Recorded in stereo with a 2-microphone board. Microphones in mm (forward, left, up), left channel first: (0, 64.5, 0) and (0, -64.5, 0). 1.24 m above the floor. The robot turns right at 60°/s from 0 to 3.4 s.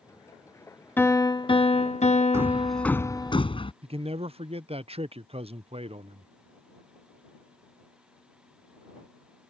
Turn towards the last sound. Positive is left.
turn(degrees=-50)  # may be behind; listen again after turning